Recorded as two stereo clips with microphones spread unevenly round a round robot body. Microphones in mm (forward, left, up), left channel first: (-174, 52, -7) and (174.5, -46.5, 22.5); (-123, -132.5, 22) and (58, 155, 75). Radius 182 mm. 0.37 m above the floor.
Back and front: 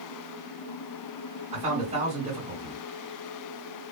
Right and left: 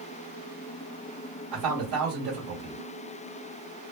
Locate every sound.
1.5 s a man speaking: 50° left, 1.9 m